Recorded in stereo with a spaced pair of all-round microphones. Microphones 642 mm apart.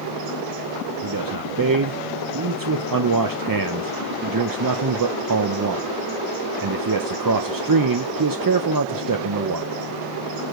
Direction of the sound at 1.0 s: 35° right (ahead or behind).